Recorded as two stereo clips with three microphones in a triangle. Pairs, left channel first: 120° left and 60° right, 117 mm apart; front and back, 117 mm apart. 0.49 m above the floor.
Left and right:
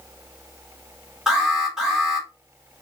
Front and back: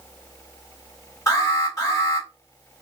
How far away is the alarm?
About 1.8 m.